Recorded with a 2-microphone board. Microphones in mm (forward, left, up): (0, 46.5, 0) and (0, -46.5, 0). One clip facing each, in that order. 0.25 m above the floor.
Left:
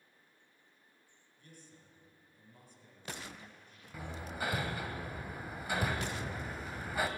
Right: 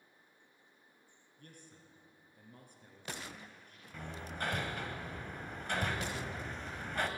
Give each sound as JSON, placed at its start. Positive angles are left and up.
{"t": 1.4, "sound": "a man speaking", "side_deg": -55, "distance_m": 3.0}
{"t": 3.9, "sound": "hammering", "side_deg": 5, "distance_m": 0.9}